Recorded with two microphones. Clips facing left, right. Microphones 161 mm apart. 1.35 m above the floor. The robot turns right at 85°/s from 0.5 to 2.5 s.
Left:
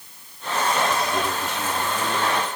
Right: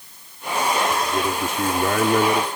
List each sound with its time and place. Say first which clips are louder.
1.0 s a man speaking: right 2 dB; 175° right; by 2.5 s 50° right